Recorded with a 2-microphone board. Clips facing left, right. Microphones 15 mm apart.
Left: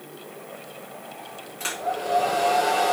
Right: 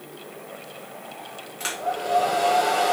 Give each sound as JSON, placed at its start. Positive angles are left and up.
{"t": 1.6, "sound": "a hair dryer", "side_deg": -15, "distance_m": 1.3}